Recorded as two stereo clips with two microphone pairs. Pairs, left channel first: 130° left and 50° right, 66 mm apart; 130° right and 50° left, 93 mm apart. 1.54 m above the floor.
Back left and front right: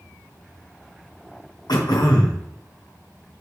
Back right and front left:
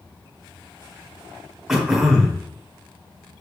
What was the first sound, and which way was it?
Throat clearing, 135° left.